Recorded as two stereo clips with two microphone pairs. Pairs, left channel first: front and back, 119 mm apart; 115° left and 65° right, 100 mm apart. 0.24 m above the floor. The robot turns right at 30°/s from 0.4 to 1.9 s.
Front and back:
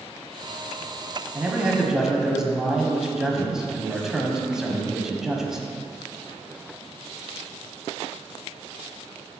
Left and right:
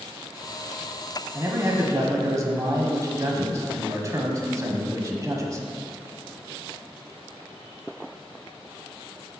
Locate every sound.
1.4 s a man speaking: 110° right, 1.1 m; by 5.7 s 95° right, 1.1 m